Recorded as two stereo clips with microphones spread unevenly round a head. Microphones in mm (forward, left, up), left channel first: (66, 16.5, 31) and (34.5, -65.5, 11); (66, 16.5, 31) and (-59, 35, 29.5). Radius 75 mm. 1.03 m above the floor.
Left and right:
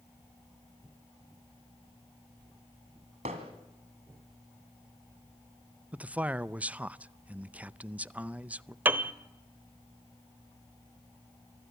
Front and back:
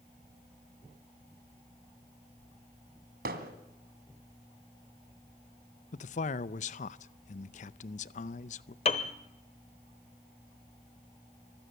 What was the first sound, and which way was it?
Hammering, 160° right.